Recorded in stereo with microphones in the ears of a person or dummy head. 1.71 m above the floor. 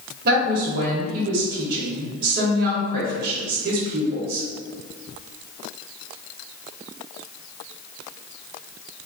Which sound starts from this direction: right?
A woman speaking, at 0.2 s.